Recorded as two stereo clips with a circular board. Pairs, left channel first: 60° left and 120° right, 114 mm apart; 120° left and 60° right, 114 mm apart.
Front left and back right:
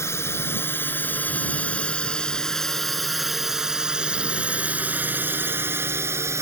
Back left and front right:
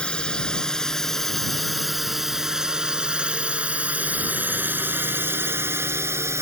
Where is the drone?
50° left; by 6.4 s 90° right.